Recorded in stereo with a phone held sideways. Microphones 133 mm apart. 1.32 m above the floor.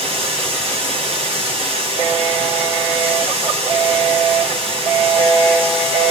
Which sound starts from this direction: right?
Running water, at 0.0 s.